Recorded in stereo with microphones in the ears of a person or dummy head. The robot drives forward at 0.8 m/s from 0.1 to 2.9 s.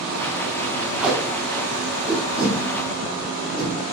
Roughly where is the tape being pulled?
Centre.